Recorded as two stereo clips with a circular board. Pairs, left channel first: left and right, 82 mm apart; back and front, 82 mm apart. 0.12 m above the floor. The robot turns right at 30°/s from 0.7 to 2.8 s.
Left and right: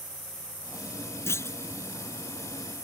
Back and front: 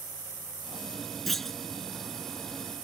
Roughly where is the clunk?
Left.